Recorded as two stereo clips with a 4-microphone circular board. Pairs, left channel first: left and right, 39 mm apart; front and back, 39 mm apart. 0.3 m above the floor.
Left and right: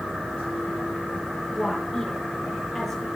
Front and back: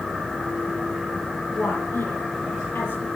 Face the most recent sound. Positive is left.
turn(degrees=5)